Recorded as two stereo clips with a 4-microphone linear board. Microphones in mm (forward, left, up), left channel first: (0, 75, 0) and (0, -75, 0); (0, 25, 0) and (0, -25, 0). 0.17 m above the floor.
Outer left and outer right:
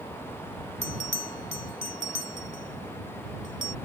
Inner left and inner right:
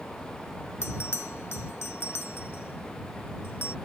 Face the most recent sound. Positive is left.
turn(degrees=55)  # may be behind; listen again after turning